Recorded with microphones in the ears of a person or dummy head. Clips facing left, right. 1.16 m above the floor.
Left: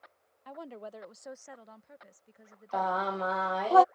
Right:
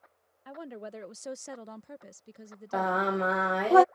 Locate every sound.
0.5 s a woman speaking: 15° right (ahead or behind); by 3.1 s 40° right (ahead or behind)
2.7 s singing: 35° right (ahead or behind)